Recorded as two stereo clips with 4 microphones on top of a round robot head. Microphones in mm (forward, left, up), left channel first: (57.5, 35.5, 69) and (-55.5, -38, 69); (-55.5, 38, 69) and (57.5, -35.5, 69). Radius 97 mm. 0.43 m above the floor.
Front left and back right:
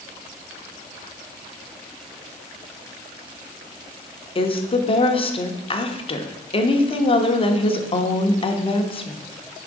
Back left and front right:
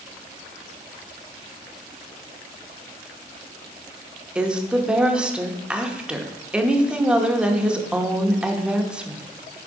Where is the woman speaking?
45° left, 0.9 m.